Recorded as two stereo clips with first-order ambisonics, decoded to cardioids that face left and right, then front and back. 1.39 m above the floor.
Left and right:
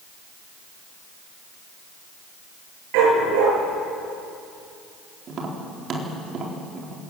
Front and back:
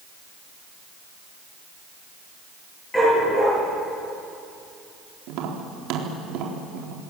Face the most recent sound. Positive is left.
turn(degrees=-150)